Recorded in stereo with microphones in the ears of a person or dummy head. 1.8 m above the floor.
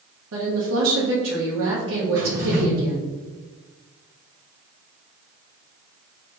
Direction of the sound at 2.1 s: 45° right (ahead or behind).